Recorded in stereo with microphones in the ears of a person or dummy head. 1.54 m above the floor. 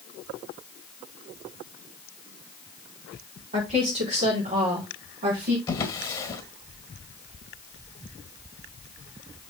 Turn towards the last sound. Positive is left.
turn(degrees=15)  # may be behind; listen again after turning